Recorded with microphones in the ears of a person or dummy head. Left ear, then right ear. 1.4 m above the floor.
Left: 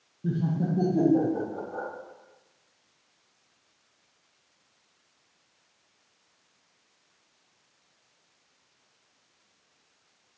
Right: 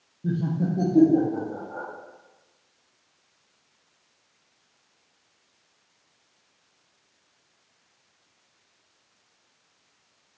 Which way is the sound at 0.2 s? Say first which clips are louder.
Right 2 dB; 10° left (ahead or behind).